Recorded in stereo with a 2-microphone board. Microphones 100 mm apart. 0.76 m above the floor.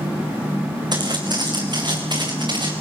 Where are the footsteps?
45° right (ahead or behind), 4 m; by 2.7 s 50° right (ahead or behind), 5 m.